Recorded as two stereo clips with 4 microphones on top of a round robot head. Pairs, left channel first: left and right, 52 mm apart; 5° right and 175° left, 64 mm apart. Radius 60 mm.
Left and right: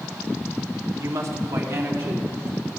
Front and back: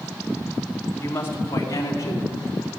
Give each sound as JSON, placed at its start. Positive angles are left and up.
{"t": 1.0, "sound": "a woman speaking", "azimuth_deg": -65, "distance_m": 2.0}